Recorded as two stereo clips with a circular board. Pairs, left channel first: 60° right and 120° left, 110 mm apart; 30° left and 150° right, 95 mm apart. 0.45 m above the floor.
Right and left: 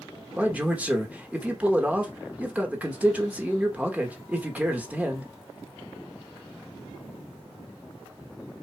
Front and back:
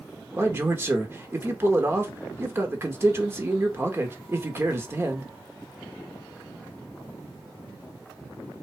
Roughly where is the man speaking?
Behind.